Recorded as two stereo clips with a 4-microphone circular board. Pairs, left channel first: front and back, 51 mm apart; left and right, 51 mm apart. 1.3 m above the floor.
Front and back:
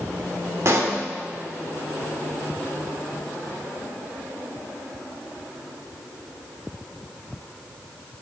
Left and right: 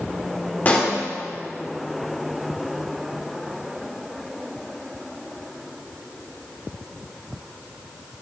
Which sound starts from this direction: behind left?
A pop, at 0.7 s.